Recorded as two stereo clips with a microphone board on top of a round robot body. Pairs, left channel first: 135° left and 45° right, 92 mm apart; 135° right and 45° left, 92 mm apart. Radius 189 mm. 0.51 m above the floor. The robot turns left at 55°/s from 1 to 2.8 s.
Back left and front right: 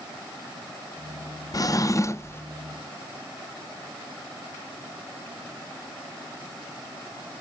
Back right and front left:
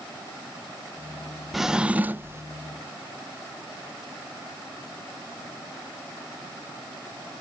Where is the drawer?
130° left, 0.6 m; by 2.4 s 85° left, 0.6 m.